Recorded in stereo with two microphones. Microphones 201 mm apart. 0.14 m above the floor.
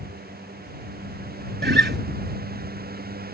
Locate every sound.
1.6 s a guitar: 60° right (ahead or behind)